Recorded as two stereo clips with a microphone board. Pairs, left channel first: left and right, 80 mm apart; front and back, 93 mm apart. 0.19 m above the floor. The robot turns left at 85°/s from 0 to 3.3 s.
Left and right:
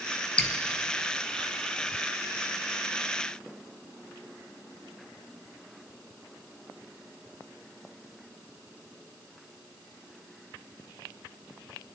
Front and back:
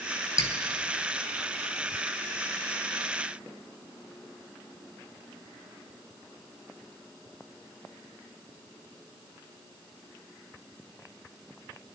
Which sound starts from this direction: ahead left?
Dripping, at 0.4 s.